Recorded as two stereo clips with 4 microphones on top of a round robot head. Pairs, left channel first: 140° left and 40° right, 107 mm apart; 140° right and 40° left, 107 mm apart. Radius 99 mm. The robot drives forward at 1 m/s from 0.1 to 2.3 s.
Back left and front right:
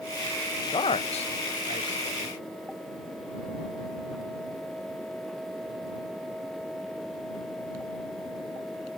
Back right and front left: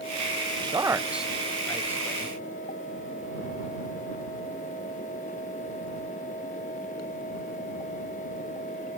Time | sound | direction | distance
0.6 | a man speaking | 85° left | 0.8 m